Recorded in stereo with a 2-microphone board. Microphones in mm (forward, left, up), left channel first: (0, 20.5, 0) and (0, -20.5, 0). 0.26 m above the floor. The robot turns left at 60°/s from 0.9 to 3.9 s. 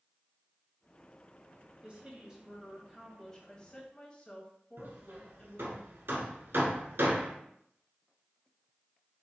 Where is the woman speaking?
110° right, 1.0 m; by 5.8 s 125° left, 1.0 m.